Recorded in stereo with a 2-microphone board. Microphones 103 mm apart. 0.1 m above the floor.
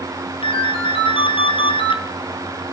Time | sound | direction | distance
0.4 | a ringtone | 60° left (ahead or behind) | 1.1 m